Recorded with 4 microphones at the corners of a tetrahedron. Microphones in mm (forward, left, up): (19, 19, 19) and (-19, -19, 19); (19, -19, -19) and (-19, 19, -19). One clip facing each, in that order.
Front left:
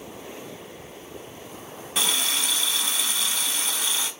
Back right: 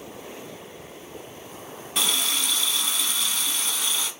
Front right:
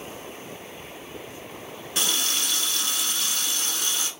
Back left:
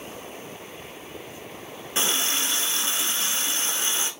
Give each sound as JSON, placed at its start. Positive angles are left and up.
{"t": 1.9, "sound": "a running tap", "azimuth_deg": 130, "distance_m": 0.8}